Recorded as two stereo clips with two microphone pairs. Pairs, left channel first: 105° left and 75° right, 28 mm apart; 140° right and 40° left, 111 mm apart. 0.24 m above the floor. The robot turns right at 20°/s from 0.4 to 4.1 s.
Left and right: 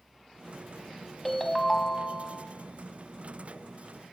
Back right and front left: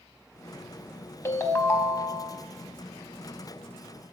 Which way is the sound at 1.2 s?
165° left.